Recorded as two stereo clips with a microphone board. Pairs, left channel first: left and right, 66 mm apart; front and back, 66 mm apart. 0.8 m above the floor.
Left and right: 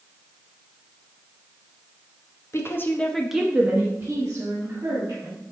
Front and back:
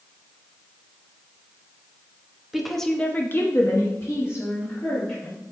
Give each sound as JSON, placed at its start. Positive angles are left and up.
{"t": 2.5, "sound": "a woman speaking", "azimuth_deg": 95, "distance_m": 1.0}